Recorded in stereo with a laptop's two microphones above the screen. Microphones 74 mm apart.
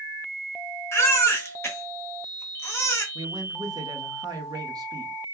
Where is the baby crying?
35° left (ahead or behind), 0.9 m.